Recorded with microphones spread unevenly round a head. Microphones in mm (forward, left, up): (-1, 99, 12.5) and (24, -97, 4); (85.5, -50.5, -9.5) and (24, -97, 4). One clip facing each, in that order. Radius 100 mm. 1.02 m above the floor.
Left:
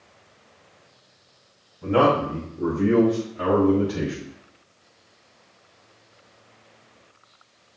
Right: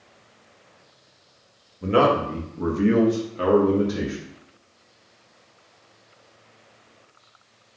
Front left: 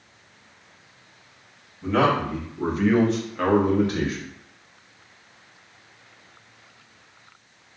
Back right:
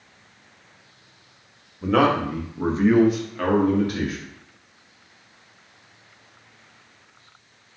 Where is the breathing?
No breathing in this recording.